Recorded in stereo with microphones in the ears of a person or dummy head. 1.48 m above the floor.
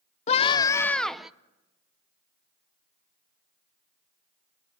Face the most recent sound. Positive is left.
turn(degrees=-5)  # may be behind; listen again after turning